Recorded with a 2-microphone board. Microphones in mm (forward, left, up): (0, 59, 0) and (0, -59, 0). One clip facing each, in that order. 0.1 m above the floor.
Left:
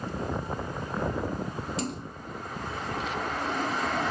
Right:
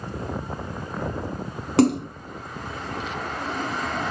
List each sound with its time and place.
1.8 s a splash: 65° right (ahead or behind), 0.8 m